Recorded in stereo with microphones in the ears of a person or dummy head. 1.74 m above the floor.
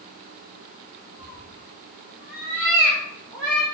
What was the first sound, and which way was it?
A cat meowing, centre (ahead or behind).